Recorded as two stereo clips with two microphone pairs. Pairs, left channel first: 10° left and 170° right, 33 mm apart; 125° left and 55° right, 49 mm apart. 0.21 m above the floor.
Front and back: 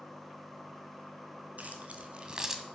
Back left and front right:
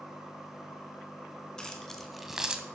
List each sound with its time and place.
1.6 s keys jangling: 165° right, 1.7 m; by 2.6 s 90° right, 1.1 m